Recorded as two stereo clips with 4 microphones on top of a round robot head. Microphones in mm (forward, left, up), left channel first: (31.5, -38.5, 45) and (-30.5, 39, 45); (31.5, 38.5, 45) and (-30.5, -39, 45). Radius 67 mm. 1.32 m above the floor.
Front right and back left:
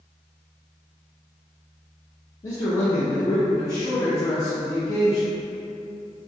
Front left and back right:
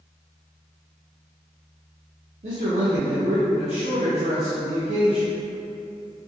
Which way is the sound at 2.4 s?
115° right.